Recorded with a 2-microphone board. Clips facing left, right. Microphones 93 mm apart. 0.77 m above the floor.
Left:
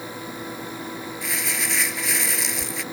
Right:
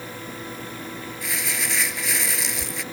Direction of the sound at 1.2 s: Centre (ahead or behind).